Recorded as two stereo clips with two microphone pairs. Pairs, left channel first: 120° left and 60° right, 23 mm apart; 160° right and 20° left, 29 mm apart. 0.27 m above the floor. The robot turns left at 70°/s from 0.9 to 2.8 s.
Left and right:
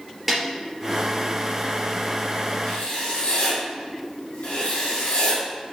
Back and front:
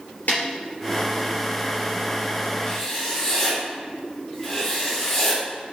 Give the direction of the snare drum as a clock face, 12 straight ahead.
5 o'clock.